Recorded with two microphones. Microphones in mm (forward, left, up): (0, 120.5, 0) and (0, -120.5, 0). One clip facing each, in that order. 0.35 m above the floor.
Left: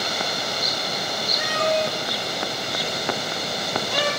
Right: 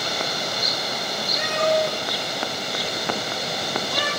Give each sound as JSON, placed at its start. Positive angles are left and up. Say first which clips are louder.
{"t": 1.4, "sound": "a cat meowing", "louder": "right 2 dB", "side_deg": -25, "distance_m": 1.6}